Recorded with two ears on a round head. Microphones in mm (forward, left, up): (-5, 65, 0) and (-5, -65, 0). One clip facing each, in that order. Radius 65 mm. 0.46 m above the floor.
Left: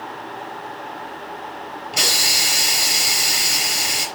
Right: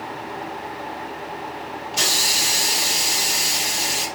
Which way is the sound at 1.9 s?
80° left.